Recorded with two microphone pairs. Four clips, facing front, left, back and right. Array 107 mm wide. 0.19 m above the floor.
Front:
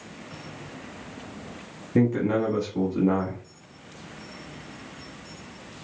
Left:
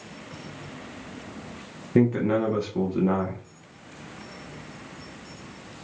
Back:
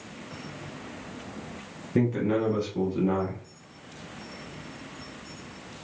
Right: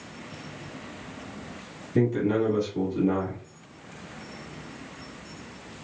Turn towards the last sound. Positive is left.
turn(degrees=60)